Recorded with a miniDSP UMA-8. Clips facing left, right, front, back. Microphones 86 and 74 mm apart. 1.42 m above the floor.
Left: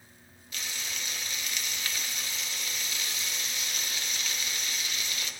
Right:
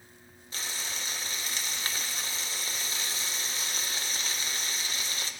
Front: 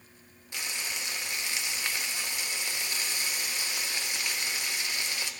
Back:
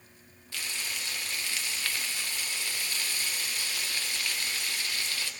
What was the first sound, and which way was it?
Frying, 60° right.